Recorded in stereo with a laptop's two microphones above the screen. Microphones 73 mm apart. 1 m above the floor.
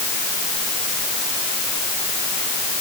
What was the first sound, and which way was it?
Only background noise.